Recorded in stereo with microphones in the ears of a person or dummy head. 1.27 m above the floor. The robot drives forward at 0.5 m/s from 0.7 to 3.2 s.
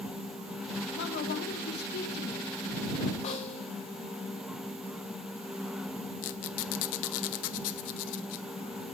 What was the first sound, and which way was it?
A woman speaking, 55° left (ahead or behind).